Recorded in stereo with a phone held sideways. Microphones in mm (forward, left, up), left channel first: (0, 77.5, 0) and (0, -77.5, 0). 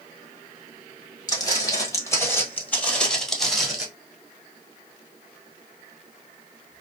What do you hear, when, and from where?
1.3 s footsteps: 25° left (ahead or behind), 1.7 m; by 3.9 s 5° right (ahead or behind), 1.5 m